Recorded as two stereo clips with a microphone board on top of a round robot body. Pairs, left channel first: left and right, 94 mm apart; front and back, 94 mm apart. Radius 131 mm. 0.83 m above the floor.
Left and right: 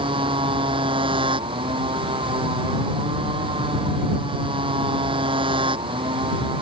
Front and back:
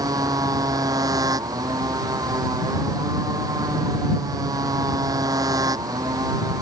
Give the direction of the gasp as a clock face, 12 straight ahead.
No gasp in this recording.